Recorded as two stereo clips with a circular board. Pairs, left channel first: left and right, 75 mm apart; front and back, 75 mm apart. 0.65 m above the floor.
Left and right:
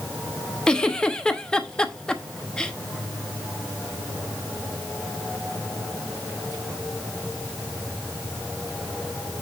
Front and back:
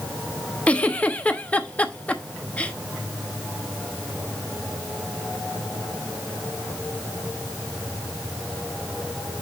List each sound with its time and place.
0.7 s a giggle: 35° left, 0.8 m